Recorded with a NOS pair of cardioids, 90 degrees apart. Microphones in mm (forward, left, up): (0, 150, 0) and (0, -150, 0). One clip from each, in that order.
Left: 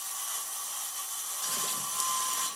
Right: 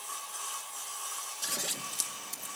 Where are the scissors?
15° right, 2 m.